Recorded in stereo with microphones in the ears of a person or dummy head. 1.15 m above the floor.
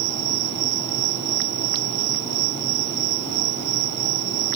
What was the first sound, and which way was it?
An insect, 65° right (ahead or behind).